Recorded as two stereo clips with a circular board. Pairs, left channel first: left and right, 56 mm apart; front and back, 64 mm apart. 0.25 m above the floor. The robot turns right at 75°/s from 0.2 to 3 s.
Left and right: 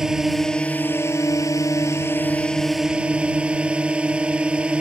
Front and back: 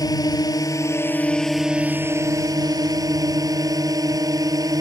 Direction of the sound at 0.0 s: 10° right.